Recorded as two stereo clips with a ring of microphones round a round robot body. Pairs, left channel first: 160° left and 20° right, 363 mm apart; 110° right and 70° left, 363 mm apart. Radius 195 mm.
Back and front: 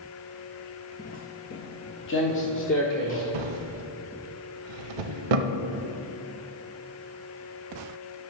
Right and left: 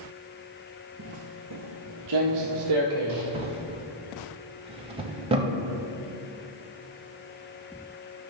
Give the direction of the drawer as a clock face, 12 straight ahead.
12 o'clock.